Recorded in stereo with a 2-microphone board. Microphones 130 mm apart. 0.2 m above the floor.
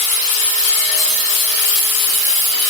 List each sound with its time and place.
Only background noise.